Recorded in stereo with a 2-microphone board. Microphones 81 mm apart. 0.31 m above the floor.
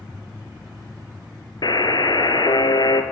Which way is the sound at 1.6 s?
65° left (ahead or behind).